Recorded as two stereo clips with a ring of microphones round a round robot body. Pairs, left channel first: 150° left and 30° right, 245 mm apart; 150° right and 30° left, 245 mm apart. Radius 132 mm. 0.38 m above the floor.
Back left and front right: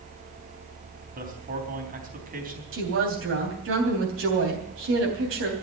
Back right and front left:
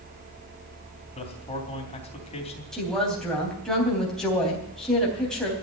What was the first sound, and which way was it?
A man speaking, 85° right.